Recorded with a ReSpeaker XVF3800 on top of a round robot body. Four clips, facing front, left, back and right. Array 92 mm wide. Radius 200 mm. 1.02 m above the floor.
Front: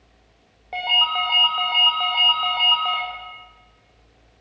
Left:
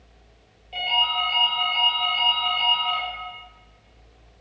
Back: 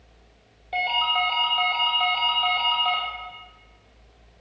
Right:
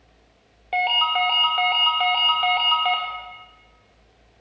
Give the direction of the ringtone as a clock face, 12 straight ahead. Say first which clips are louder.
Right 4 dB, front 1 dB; 2 o'clock.